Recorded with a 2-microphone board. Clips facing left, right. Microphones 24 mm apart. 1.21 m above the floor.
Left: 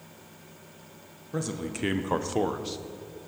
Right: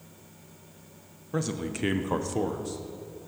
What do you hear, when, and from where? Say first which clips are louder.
1.3 s a man speaking: right 2 dB; 15° right (ahead or behind), 0.9 m; by 2.8 s 45° left (ahead or behind), 0.7 m